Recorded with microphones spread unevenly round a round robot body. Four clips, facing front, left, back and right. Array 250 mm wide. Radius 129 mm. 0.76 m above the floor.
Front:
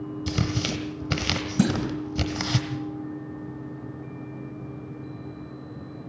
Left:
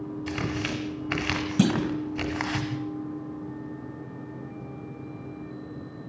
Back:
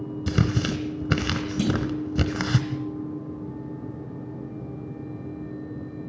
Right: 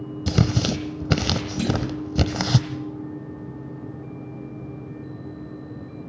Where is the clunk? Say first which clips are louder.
Left 3 dB, front 2 dB; 45° left, 3 m.